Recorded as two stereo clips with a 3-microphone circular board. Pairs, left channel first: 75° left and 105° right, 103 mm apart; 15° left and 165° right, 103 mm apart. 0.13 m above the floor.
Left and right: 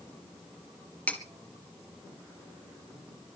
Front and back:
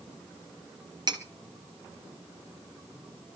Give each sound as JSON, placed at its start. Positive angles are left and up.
{"t": 1.1, "sound": "cutlery clinking", "azimuth_deg": 150, "distance_m": 1.9}